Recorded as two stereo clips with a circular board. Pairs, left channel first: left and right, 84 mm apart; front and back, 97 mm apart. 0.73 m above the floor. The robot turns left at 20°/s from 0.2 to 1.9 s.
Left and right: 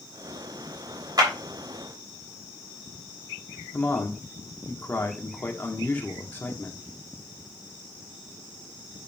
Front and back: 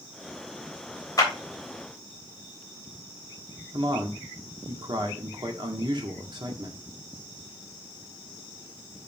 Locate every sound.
1.2 s a clap: 50° right, 3 m; by 1.3 s 55° right, 3 m
3.7 s a man speaking: 155° left, 1.7 m